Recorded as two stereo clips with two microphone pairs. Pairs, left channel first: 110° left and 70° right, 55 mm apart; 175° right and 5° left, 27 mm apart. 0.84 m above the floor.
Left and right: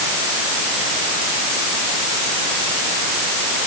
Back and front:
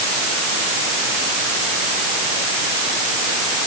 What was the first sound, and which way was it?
Only background noise.